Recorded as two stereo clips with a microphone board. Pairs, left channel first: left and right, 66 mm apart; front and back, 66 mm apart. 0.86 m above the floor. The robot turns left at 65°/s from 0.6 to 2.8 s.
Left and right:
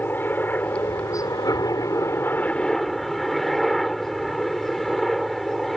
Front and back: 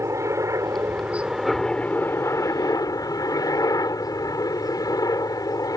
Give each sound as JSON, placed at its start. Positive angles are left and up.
{"t": 0.0, "sound": "a helicopter", "azimuth_deg": 145}